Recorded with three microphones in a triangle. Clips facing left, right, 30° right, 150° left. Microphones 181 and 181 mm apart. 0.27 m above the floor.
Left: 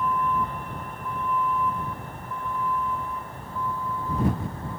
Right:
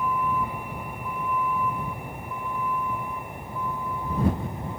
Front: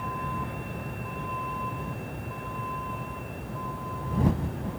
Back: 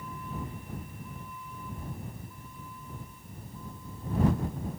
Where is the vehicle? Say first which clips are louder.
Left 1 dB, front 5 dB; 10° right; by 4.8 s 15° right.